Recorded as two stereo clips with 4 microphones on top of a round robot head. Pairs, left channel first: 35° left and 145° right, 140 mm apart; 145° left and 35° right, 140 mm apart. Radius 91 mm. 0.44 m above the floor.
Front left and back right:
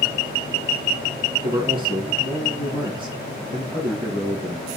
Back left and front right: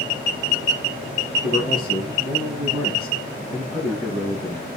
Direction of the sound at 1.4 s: 160° left.